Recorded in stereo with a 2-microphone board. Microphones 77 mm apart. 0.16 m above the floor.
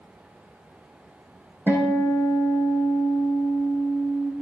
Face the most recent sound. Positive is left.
turn(degrees=-25)  # may be behind; listen again after turning